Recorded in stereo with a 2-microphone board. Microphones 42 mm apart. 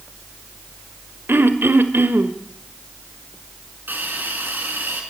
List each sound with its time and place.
1.3 s throat clearing: 65° right (ahead or behind), 1.8 m
3.9 s a hiss: 55° right (ahead or behind), 5 m